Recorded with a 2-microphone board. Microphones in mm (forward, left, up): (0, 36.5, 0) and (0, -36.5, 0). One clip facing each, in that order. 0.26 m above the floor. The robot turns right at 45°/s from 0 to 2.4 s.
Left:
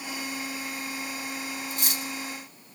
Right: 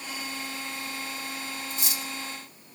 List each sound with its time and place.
1.7 s cutlery clinking: 50° left (ahead or behind), 1.2 m; by 2.0 s 55° left (ahead or behind), 1.2 m